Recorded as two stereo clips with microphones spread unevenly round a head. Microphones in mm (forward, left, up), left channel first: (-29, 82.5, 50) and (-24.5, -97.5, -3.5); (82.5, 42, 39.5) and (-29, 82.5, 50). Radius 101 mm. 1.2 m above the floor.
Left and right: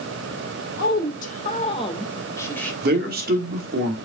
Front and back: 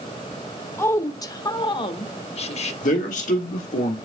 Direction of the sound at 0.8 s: 45° left.